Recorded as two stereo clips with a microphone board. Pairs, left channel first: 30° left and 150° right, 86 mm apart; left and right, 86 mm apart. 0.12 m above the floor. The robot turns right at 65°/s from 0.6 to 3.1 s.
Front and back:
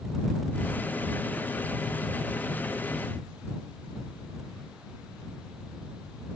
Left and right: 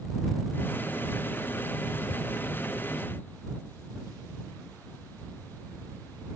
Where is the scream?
No scream in this recording.